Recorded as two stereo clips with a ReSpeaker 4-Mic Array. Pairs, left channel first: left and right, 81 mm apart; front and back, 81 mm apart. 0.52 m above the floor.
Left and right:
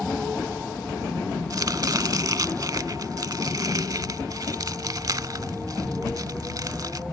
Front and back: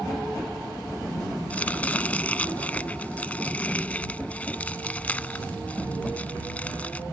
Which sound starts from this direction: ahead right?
Chopping, at 1.5 s.